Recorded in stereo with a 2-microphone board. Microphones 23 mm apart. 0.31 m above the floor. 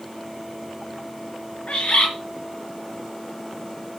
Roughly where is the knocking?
I don't hear knocking.